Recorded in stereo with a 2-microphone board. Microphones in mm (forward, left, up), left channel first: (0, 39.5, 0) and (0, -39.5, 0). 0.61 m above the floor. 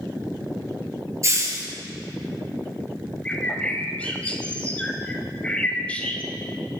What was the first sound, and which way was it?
A hiss, 40° right (ahead or behind).